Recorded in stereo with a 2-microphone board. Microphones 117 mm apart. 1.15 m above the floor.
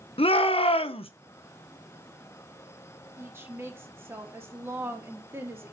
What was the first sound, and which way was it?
A shout, 50° left (ahead or behind).